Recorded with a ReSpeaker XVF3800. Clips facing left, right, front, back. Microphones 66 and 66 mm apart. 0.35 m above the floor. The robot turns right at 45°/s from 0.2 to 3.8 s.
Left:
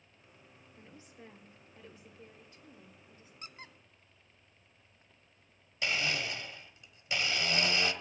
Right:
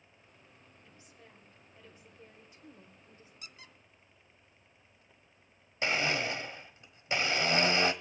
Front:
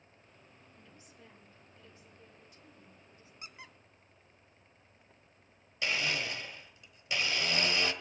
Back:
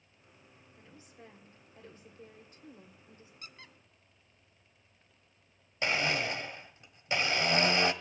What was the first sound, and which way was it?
A woman speaking, 125° left.